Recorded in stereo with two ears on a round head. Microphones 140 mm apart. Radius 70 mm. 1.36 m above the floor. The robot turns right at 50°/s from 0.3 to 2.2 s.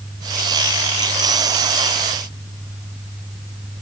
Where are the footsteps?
No footsteps in this recording.